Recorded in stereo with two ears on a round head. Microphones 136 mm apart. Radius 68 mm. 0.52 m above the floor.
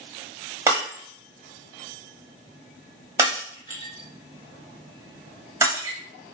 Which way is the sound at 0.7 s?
20° right (ahead or behind).